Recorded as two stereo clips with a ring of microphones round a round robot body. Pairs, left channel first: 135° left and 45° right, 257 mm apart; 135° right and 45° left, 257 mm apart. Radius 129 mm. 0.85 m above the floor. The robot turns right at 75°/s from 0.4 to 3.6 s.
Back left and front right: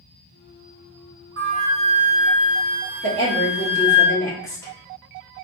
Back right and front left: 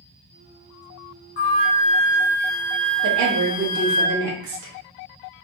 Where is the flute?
90° right, 1.9 m; by 4.0 s 75° left, 1.9 m.